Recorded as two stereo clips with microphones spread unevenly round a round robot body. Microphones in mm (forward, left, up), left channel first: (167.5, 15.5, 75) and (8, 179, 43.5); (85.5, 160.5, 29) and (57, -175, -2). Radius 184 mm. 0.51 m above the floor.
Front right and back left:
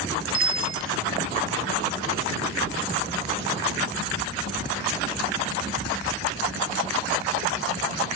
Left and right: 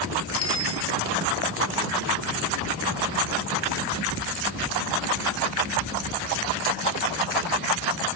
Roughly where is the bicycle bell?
Behind left.